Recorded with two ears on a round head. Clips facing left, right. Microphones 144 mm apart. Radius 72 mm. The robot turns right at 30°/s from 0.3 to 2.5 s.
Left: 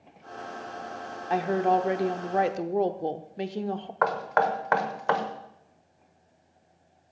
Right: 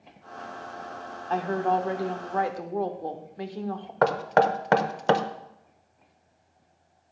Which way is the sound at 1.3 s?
15° left (ahead or behind).